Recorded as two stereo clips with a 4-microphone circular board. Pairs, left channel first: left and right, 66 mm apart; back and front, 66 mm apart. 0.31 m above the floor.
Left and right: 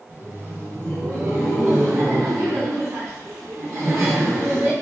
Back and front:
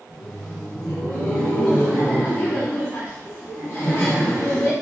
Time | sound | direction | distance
0.1 | laughter | 90° right | 1.3 m